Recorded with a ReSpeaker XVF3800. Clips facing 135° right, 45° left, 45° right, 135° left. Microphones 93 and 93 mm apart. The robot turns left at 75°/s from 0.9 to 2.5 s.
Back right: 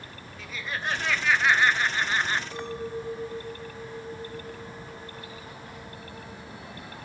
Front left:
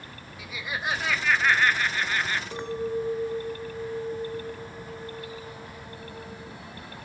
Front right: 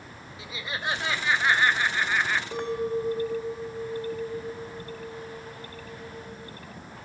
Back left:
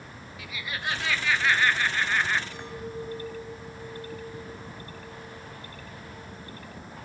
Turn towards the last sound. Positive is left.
turn(degrees=-25)